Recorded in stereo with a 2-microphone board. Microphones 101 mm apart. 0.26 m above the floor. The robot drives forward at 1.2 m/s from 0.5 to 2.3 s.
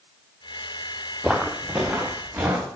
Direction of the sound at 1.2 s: Centre (ahead or behind).